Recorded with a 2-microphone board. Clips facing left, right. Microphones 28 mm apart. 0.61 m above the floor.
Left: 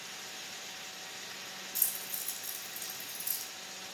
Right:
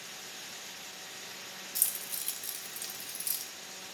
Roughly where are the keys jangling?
Right.